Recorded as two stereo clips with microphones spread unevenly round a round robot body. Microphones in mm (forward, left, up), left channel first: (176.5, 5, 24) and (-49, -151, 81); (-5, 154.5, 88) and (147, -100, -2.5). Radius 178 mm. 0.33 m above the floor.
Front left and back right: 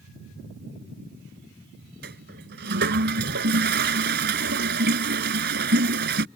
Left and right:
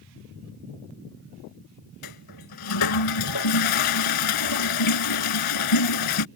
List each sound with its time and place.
2.0 s a toilet flushing: 150° left